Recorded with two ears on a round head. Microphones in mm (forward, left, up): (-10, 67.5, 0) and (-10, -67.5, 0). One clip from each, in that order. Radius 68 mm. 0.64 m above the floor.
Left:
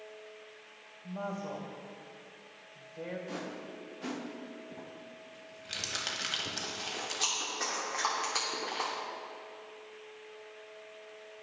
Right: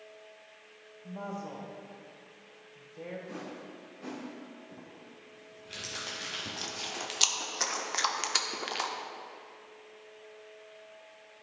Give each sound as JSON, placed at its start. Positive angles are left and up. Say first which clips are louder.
{"t": 1.0, "sound": "a woman speaking", "louder": "left 2 dB", "side_deg": -10, "distance_m": 1.7}
{"t": 3.3, "sound": "a whoosh", "louder": "left 2 dB", "side_deg": 50, "distance_m": 0.8}
{"t": 4.7, "sound": "crumpling", "louder": "left 3 dB", "side_deg": 35, "distance_m": 1.1}
{"t": 6.5, "sound": "chewing", "louder": "even", "side_deg": -60, "distance_m": 0.7}